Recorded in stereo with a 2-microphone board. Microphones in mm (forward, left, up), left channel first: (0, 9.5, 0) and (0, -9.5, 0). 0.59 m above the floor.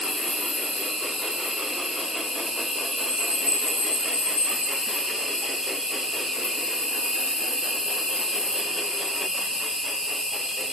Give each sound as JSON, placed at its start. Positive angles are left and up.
{"t": 0.0, "sound": "an insect", "side_deg": -70, "distance_m": 1.2}